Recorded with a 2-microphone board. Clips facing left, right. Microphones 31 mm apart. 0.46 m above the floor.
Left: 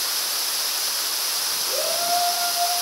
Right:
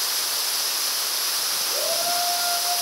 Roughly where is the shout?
Left.